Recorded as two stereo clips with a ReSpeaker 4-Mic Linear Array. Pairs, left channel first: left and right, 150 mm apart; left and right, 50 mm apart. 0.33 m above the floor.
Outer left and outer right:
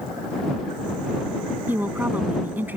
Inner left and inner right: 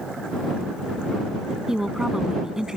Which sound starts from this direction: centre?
A woman speaking, at 1.7 s.